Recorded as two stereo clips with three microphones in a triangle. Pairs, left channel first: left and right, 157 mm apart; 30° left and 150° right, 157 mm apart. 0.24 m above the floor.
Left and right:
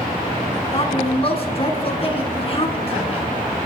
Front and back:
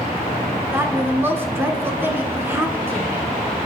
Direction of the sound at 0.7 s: 135° left.